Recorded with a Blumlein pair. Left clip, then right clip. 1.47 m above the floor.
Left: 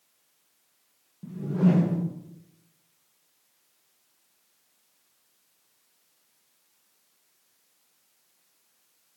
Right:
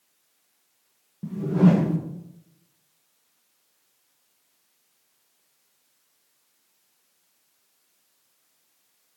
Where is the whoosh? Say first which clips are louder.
Right 5 dB; 70° right, 1.3 m.